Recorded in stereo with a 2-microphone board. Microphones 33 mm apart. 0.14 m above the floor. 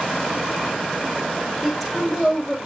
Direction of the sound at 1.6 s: 5° left (ahead or behind).